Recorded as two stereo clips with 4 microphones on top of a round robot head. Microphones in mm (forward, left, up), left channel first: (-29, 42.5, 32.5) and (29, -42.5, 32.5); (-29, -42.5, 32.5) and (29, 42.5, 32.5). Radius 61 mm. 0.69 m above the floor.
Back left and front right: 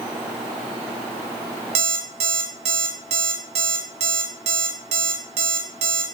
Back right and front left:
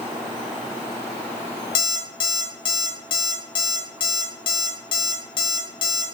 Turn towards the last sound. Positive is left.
turn(degrees=-80)